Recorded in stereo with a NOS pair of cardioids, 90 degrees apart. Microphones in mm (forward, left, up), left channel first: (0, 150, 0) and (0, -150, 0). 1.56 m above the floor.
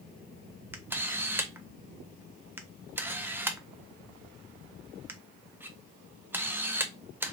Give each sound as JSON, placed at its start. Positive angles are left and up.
{"t": 0.7, "sound": "a camera shutter", "azimuth_deg": -5, "distance_m": 0.7}